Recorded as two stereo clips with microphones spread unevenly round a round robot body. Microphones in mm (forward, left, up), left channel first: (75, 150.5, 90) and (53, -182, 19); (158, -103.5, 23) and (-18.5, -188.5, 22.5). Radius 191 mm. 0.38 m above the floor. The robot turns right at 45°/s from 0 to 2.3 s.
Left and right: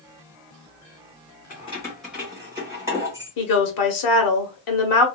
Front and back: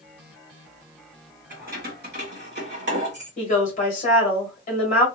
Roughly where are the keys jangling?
Behind.